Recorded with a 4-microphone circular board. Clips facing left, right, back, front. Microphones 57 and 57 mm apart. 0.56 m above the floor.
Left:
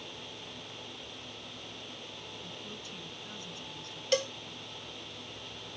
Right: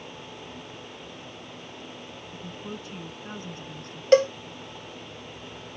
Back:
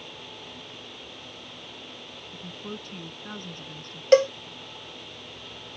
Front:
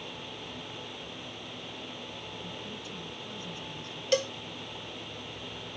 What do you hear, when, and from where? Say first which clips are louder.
2.3 s a woman speaking: right 10 dB, back 2 dB; 140° right
4.1 s a cowbell: right 13 dB, back 11 dB; 135° right